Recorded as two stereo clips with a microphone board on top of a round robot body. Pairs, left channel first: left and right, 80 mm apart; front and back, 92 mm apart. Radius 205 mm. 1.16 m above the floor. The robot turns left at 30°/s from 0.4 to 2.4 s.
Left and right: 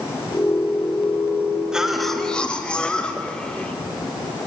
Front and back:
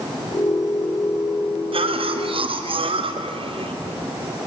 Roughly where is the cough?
Behind.